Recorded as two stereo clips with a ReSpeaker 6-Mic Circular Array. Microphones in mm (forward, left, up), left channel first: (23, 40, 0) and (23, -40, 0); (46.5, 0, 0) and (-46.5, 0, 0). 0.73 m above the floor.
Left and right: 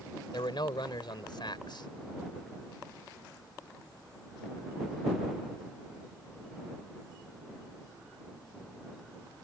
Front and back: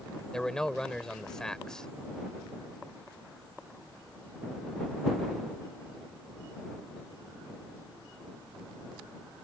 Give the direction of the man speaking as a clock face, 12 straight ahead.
9 o'clock.